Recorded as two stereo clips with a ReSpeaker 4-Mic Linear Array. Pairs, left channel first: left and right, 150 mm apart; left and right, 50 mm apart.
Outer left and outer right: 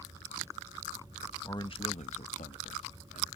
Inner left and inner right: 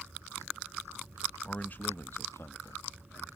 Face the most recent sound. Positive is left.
turn(degrees=75)  # may be behind; listen again after turning